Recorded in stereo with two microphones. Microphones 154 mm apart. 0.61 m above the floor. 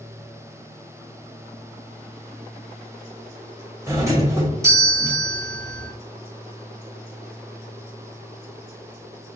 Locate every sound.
3.9 s a doorbell: 20° right (ahead or behind), 1.1 m